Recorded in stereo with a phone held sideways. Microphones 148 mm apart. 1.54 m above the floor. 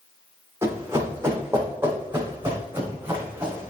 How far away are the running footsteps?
About 4 m.